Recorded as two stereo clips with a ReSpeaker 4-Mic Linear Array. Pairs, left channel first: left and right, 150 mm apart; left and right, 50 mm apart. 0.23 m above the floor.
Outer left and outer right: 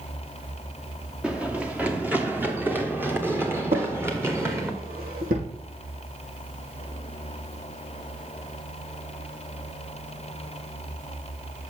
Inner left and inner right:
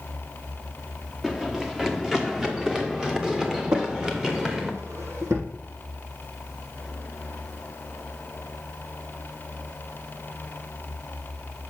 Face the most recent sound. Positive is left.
turn(degrees=-75)  # may be behind; listen again after turning